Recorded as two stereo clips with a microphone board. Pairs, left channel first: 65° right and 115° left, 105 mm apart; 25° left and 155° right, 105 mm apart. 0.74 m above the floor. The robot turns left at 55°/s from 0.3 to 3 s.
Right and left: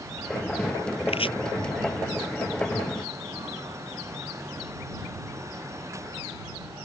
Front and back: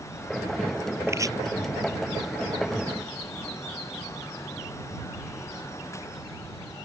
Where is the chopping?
90° right; by 1.3 s 105° right.